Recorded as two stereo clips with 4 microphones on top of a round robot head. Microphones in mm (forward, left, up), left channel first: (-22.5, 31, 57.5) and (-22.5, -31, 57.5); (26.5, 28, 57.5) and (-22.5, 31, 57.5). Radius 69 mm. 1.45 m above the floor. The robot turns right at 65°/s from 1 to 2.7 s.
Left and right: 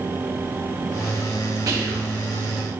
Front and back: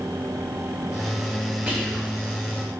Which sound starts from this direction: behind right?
Whispering, at 1.7 s.